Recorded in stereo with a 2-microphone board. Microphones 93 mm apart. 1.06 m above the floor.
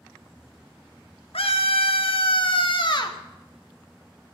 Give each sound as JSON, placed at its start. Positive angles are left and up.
{"t": 1.3, "sound": "a scream", "side_deg": 85, "distance_m": 1.9}